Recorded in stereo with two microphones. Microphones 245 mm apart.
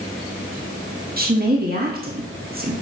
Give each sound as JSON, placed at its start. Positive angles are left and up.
{"t": 1.2, "sound": "a woman speaking", "side_deg": -40, "distance_m": 1.4}